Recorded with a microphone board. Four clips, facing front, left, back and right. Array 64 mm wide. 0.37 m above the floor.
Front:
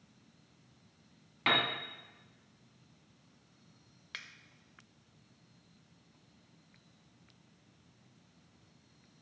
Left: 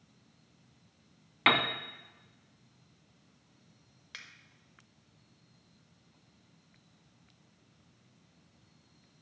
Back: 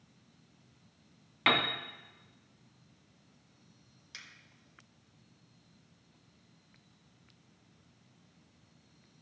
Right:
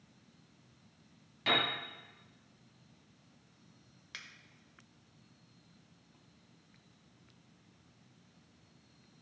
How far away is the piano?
About 0.9 m.